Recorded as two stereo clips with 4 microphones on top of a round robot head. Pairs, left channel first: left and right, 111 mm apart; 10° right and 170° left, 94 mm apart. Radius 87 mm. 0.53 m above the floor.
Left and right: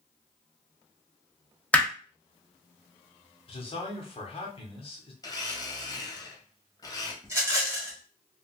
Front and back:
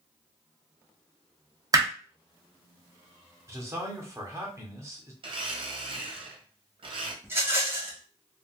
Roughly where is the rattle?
Behind right.